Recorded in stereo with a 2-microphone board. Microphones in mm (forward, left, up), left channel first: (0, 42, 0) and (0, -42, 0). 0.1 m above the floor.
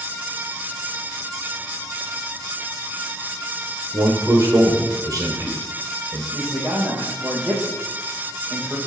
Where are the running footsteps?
I don't hear running footsteps.